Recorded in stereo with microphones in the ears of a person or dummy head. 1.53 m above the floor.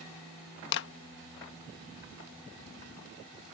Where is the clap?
60° left (ahead or behind).